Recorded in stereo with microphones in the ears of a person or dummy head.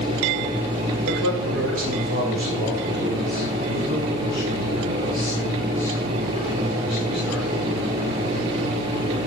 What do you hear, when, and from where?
1.1 s a man speaking: 65° right (ahead or behind), 2.5 m; by 7.5 s 10° right (ahead or behind), 6.5 m